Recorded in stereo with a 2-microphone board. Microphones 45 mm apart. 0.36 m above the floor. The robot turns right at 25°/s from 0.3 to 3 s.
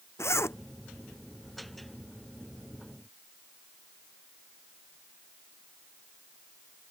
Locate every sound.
0.2 s a zipper: 85° left